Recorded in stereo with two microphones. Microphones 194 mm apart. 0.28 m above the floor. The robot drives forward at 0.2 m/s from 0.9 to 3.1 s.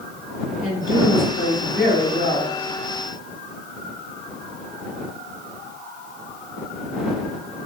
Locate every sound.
0.6 s a woman speaking: 40° left (ahead or behind), 1.7 m